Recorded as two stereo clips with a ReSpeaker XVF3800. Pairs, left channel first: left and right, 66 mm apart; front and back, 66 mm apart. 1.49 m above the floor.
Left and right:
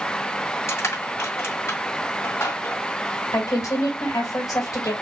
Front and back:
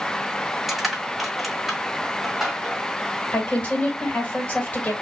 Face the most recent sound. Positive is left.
turn(degrees=65)